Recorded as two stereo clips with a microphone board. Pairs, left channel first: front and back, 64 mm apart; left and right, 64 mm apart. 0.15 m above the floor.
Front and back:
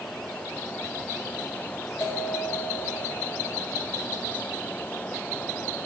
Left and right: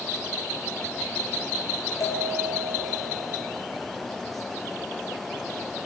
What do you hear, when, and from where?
2.0 s a bell: 55° left, 4 m